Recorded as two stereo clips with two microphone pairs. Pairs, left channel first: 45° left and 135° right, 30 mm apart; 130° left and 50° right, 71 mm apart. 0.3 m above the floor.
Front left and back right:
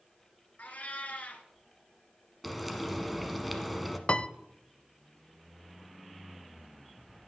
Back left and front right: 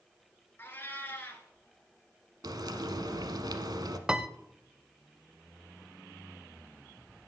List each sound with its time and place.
0.6 s a cat meowing: 70° left, 1.7 m
2.4 s frying: 50° right, 1.0 m
4.1 s a piano: 25° left, 0.5 m